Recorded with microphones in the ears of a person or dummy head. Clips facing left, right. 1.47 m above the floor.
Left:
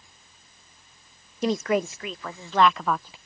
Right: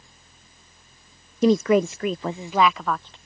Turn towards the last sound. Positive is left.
turn(degrees=10)  # may be behind; listen again after turning